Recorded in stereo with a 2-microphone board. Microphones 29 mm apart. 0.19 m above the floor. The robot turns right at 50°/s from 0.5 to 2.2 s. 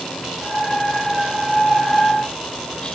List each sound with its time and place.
Only background noise.